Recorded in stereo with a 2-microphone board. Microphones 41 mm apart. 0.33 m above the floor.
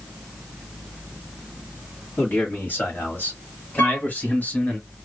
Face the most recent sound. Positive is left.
turn(degrees=60)  # may be behind; listen again after turning